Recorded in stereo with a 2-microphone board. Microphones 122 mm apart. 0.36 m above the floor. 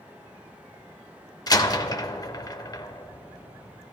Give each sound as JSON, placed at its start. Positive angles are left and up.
{"t": 1.5, "sound": "a door slam", "side_deg": 30, "distance_m": 0.6}